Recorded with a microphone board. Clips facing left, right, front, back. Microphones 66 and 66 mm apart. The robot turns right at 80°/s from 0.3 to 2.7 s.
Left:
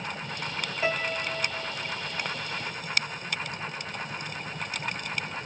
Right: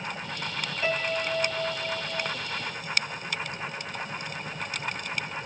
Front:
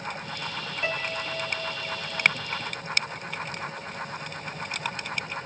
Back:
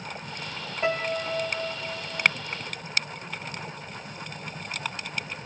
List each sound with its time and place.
0.8 s a piano: 160° left, 0.9 m; by 2.3 s 80° right, 0.9 m